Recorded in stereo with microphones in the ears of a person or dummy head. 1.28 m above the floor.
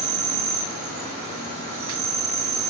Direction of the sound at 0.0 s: 55° right (ahead or behind).